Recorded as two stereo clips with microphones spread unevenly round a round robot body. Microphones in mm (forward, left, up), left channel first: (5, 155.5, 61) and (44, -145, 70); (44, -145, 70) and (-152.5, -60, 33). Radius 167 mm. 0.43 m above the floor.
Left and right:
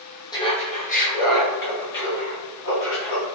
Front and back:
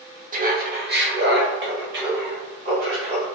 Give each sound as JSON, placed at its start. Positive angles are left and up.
{"t": 0.3, "sound": "laughter", "azimuth_deg": 170, "distance_m": 1.0}